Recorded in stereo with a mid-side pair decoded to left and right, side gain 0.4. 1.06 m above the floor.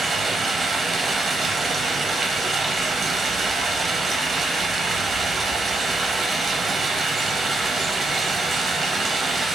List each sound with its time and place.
0.0 s running water: 50° right, 0.8 m